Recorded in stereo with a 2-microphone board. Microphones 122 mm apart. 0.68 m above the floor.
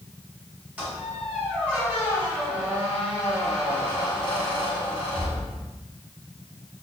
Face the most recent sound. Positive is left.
turn(degrees=-10)  # may be behind; listen again after turning